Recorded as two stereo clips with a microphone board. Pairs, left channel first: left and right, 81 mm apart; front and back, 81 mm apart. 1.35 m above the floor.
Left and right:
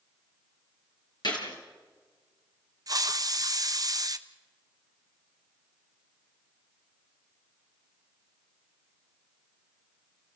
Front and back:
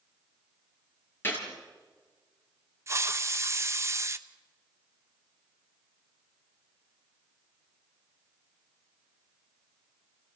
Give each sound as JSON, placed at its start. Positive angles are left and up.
{"t": 1.2, "sound": "a gunshot", "azimuth_deg": 65, "distance_m": 5.0}
{"t": 2.9, "sound": "a hiss", "azimuth_deg": -125, "distance_m": 0.8}